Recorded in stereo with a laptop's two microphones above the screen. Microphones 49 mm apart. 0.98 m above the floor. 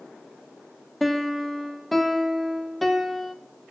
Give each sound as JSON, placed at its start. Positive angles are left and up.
{"t": 1.0, "sound": "a piano", "side_deg": 5, "distance_m": 0.9}